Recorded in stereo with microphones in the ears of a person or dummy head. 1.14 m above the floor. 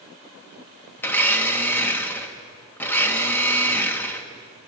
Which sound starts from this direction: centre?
A blender, at 1.0 s.